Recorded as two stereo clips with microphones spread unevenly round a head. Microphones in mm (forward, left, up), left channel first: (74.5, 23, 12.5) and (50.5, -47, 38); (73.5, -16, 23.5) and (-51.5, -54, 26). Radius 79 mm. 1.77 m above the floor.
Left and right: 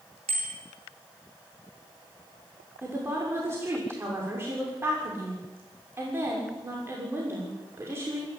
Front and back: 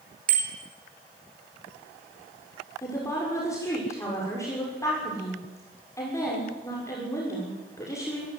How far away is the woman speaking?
About 6.5 m.